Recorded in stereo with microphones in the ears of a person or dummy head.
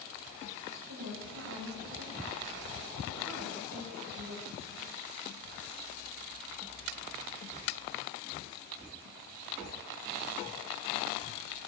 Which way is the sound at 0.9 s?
75° right (ahead or behind).